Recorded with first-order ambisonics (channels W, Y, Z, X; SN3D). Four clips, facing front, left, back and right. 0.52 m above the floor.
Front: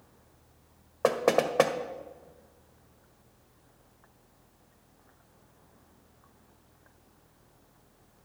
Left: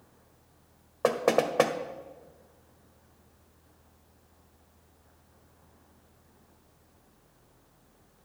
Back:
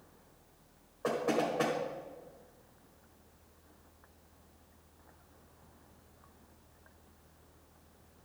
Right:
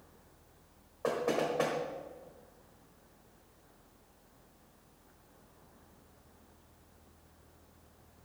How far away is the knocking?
About 1.3 m.